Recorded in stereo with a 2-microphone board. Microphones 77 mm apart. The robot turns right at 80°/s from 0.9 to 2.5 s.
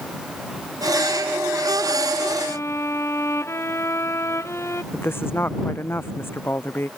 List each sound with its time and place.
2.5 s a violin: 30° left (ahead or behind); by 4.8 s 35° left (ahead or behind)
4.9 s a woman speaking: 30° left (ahead or behind)